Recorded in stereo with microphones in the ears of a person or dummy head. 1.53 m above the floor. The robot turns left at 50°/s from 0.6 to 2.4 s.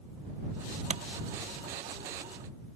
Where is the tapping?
35° right (ahead or behind); by 1.0 s 30° right (ahead or behind).